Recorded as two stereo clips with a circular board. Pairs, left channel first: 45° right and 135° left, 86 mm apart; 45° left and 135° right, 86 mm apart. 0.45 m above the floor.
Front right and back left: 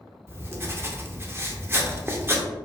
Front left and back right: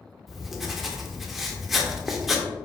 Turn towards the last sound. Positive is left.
turn(degrees=140)